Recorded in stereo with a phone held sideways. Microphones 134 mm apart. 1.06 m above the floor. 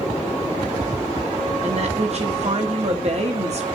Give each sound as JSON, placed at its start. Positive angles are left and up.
{"t": 1.6, "sound": "a woman speaking", "side_deg": -55, "distance_m": 1.7}